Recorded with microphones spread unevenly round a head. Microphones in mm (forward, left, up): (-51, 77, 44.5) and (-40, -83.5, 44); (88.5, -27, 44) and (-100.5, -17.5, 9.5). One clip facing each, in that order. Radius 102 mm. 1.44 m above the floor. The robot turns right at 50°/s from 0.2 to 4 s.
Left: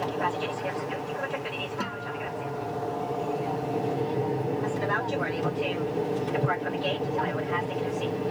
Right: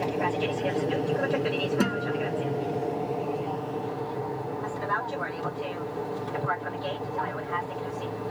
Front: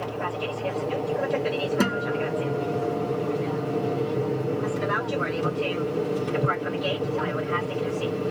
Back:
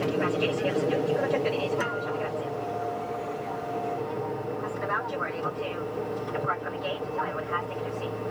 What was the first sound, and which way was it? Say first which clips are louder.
An aircraft: right 2 dB, back 4 dB; 155° right.